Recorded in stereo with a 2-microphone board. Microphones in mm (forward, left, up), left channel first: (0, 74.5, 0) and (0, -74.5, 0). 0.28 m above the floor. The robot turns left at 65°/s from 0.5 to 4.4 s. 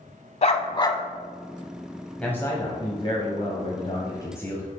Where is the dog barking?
55° left, 0.7 m; by 1.0 s 20° left, 0.7 m.